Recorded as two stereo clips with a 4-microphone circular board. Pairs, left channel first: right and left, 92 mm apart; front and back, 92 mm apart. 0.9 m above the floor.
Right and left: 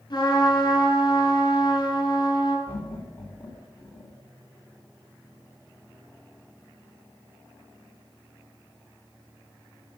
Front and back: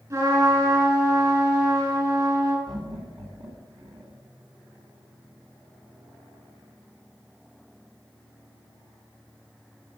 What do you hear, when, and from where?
0.1 s a trumpet: 130° right, 4.5 m
2.7 s laughter: 155° right, 3 m